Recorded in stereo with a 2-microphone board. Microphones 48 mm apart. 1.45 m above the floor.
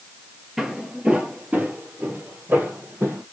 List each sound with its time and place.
0.6 s footsteps: 5° right (ahead or behind), 1.5 m; by 3.2 s 50° right (ahead or behind), 2.5 m